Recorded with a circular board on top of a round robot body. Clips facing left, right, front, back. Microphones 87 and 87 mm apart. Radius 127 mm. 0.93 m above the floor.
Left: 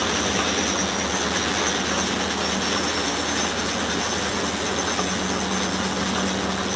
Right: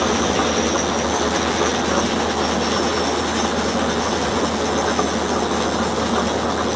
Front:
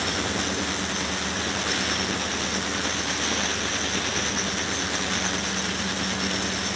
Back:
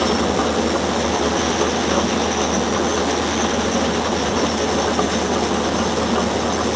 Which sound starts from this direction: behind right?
An engine running, at 0.0 s.